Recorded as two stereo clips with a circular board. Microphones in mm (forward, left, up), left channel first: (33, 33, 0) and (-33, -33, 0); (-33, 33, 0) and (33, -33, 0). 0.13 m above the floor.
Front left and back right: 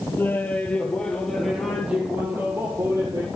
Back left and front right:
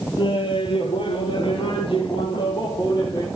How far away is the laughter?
About 3 m.